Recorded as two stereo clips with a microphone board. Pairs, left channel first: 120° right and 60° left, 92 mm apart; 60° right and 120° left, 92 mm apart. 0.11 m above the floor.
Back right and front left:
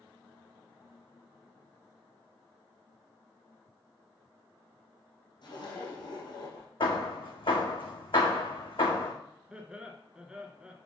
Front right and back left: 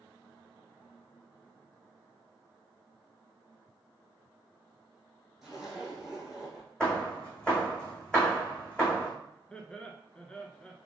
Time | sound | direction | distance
5.4 | a zipper | 155° right | 3 m
6.8 | hammering | 140° right | 1.9 m
9.5 | laughter | straight ahead | 1.1 m